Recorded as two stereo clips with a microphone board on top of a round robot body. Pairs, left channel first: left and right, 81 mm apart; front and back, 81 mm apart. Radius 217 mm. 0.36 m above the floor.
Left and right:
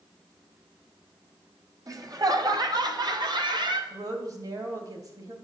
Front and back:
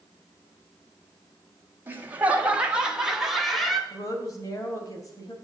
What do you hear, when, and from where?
1.9 s laughter: 120° right, 2 m; by 3.8 s 90° right, 2.5 m
3.9 s a woman speaking: 45° right, 3 m